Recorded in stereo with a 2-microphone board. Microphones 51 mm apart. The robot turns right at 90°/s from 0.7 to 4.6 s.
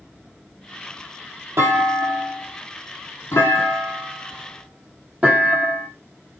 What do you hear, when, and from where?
1.6 s a clunk: 60° right (ahead or behind), 4 m; by 5.9 s 30° right (ahead or behind), 4 m